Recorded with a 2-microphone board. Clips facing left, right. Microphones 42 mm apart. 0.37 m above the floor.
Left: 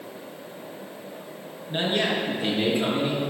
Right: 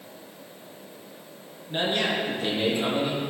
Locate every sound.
1.7 s a man speaking: 10° left (ahead or behind), 4.5 m; by 3.2 s 20° left (ahead or behind), 5 m